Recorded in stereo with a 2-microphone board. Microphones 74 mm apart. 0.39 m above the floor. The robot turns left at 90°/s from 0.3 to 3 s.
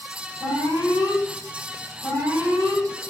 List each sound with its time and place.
0.4 s an alarm: 115° left, 6 m; by 2.8 s 105° right, 6 m